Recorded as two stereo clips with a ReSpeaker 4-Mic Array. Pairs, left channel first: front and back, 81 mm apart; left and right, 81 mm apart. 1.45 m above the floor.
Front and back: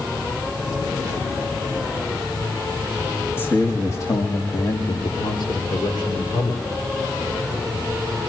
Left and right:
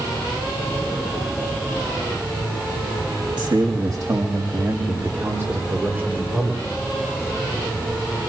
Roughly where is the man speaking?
Ahead right.